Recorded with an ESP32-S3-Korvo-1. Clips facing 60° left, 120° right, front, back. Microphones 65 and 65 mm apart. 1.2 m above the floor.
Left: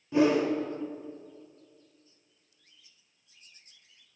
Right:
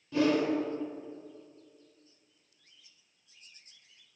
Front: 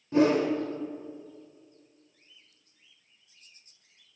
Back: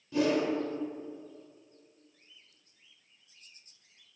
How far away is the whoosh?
About 1.0 m.